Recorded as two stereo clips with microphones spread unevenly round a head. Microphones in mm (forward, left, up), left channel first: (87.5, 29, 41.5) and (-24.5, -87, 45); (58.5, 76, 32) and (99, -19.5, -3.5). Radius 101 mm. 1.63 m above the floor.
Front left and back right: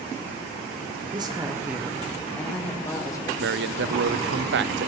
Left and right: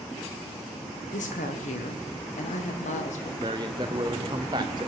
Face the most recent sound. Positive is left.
turn(degrees=-130)